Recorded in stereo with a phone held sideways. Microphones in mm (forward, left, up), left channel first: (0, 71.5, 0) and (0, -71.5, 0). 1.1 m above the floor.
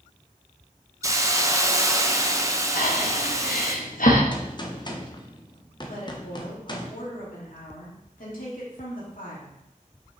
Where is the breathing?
75° left (ahead or behind), 1.1 m.